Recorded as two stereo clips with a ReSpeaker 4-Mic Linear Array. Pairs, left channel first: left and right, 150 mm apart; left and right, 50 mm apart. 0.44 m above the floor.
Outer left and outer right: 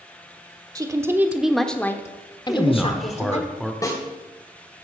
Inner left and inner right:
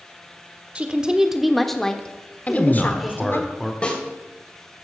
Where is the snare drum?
20° left (ahead or behind), 2.5 m.